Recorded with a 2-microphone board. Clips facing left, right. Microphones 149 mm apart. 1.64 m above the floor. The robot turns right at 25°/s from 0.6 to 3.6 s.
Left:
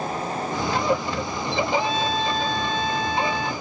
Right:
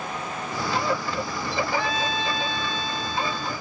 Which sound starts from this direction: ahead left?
A trumpet, at 1.8 s.